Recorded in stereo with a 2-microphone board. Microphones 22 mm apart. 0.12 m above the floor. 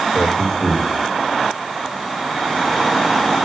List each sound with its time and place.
0.1 s a man speaking: 65° left (ahead or behind), 6.5 m